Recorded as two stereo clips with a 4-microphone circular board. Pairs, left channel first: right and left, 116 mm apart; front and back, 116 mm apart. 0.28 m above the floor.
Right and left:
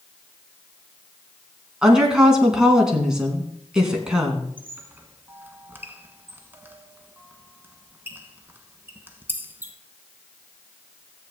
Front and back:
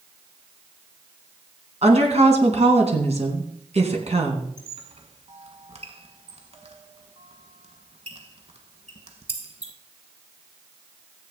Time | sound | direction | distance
1.8 | a woman speaking | 175° left | 2.5 m
4.6 | a squeak | 160° left | 1.2 m